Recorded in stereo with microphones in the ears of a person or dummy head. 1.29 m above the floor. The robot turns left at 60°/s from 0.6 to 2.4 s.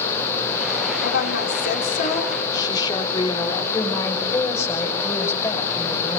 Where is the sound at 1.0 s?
105° left, 3 m; by 3.6 s 25° left, 3 m.